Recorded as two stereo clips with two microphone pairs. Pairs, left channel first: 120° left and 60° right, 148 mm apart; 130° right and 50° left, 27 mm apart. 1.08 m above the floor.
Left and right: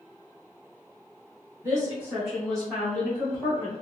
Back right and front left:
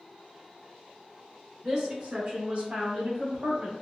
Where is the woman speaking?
Straight ahead, 1.1 m; by 3.7 s 45° left, 2.5 m.